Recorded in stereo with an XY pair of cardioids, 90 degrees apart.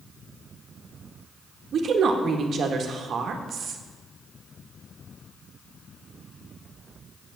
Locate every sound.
1.7 s a woman speaking: 65° right, 1.5 m